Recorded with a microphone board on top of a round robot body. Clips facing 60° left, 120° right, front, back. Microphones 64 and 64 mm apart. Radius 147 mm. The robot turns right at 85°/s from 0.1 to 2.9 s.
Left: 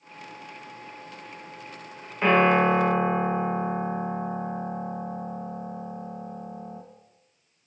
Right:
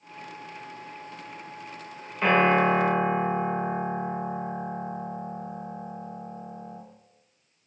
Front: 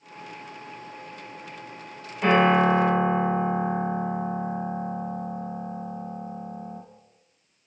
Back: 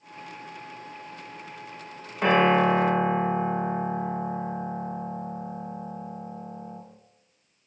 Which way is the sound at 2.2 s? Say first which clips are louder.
Left 1 dB, front 1 dB; 140° left.